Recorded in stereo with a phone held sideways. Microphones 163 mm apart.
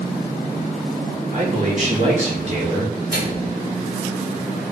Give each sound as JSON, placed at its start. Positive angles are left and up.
{"t": 1.3, "sound": "a man speaking", "side_deg": -55, "distance_m": 3.0}
{"t": 3.1, "sound": "a microwave", "side_deg": -75, "distance_m": 3.0}